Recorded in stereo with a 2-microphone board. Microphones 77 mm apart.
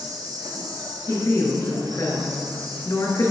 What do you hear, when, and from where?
0.0 s an insect: 55° right (ahead or behind), 1.5 m
1.1 s a woman speaking: 50° left (ahead or behind), 2.5 m